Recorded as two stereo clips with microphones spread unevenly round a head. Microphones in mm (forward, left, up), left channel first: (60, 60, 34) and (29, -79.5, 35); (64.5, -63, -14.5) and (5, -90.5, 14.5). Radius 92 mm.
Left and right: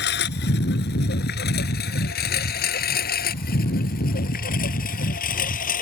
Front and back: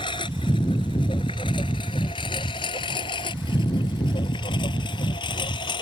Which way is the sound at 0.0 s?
85° left.